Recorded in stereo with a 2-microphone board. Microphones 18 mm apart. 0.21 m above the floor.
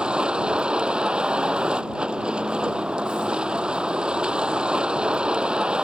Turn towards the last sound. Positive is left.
turn(degrees=-80)